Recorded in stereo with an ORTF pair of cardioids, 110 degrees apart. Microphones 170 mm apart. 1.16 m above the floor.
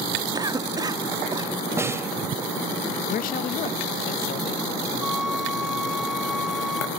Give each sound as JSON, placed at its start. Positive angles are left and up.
{"t": 0.3, "sound": "a cough", "azimuth_deg": -25, "distance_m": 2.0}
{"t": 1.8, "sound": "a snare drum", "azimuth_deg": -15, "distance_m": 2.0}
{"t": 3.1, "sound": "a man speaking", "azimuth_deg": 55, "distance_m": 1.4}
{"t": 5.0, "sound": "a flute", "azimuth_deg": -5, "distance_m": 1.9}